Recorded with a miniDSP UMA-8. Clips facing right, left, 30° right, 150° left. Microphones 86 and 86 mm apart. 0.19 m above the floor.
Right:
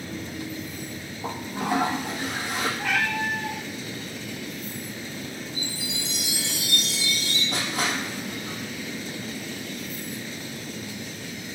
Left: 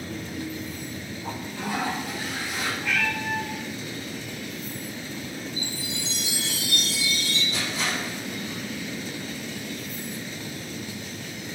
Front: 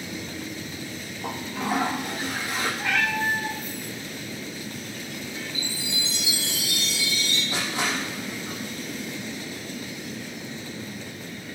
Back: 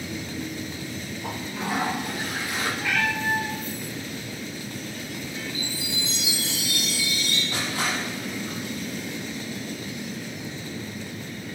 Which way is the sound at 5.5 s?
95° right.